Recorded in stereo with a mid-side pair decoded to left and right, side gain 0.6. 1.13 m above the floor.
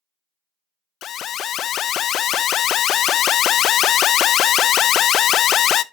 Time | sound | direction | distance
1.0 | an alarm | 50° left | 0.5 m